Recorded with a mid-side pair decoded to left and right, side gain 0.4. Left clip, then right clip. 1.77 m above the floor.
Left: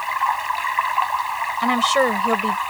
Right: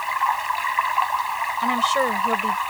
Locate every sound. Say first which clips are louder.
0.0 s running water: left 1 dB; 10° left
1.6 s a woman speaking: left 3 dB; 45° left